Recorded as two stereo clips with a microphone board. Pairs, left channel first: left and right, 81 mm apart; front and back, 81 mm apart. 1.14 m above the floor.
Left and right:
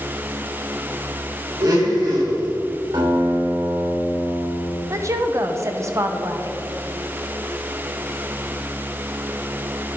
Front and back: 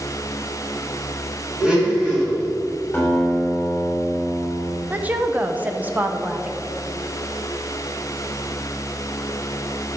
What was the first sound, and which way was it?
A blender, 110° right.